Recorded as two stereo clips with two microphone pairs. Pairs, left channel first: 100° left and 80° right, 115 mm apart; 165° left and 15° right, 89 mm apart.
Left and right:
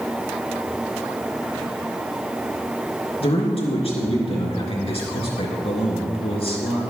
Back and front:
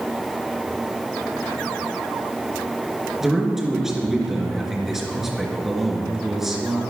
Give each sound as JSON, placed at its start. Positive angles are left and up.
{"t": 3.2, "sound": "a man speaking", "azimuth_deg": 70, "distance_m": 3.0}